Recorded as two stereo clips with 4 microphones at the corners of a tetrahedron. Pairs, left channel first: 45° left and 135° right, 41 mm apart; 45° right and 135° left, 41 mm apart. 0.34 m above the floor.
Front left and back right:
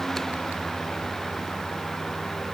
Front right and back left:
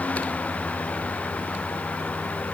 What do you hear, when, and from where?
Only background noise.